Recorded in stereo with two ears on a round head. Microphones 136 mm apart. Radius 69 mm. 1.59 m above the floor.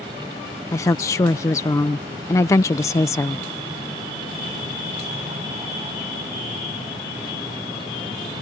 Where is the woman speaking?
20° left (ahead or behind).